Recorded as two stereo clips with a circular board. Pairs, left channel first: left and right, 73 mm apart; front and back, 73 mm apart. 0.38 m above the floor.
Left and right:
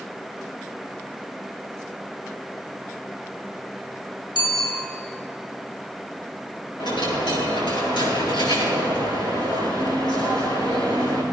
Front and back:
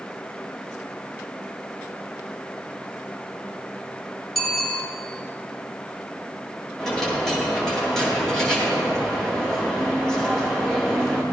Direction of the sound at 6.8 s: 85° left.